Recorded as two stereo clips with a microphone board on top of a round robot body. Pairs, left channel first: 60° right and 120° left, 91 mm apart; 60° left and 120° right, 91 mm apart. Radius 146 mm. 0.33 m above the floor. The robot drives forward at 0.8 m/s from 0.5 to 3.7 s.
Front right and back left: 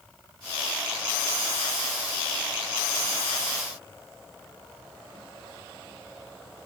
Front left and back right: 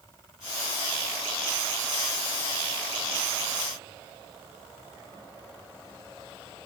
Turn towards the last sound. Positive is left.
No sound to turn to.